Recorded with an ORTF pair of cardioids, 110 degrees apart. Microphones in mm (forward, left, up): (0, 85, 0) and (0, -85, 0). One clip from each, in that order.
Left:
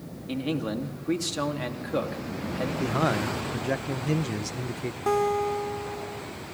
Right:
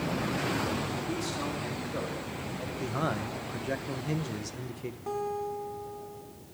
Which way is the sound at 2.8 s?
25° left.